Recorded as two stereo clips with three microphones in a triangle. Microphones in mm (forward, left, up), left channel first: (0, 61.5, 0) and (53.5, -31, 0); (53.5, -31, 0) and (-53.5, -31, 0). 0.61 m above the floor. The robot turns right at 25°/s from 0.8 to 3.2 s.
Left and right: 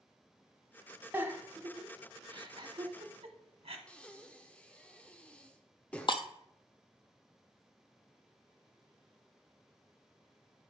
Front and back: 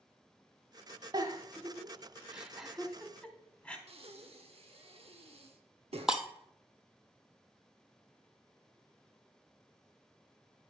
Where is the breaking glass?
95° left, 0.9 m.